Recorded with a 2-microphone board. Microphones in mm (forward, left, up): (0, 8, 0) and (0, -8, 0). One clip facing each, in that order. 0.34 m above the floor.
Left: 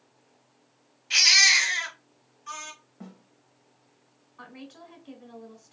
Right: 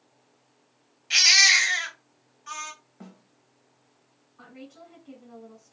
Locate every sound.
1.1 s a baby crying: 15° right (ahead or behind), 1.7 m
3.0 s a snare drum: 20° right (ahead or behind), 0.8 m
4.4 s a woman speaking: 25° left (ahead or behind), 1.4 m